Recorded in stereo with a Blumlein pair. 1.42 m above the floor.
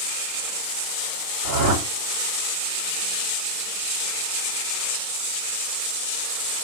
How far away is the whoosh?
About 4 m.